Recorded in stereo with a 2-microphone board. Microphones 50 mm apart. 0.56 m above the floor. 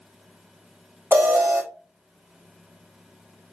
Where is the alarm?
35° right (ahead or behind), 1.1 m.